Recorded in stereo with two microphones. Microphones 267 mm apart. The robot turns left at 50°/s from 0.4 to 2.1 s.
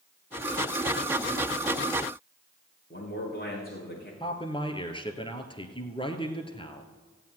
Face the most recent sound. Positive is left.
turn(degrees=20)  # may be behind; listen again after turning